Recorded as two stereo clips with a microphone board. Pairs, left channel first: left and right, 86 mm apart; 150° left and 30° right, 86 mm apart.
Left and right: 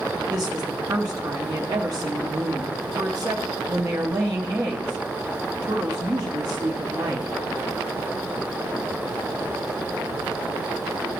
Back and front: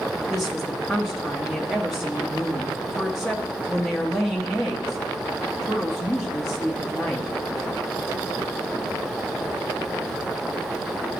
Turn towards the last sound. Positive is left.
turn(degrees=-120)